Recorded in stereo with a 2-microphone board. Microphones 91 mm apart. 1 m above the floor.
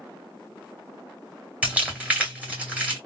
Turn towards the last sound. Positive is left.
turn(degrees=-15)  # may be behind; listen again after turning